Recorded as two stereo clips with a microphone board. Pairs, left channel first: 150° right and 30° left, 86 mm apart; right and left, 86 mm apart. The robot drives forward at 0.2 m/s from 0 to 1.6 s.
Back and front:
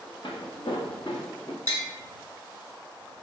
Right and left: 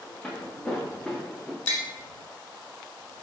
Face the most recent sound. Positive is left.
turn(degrees=-20)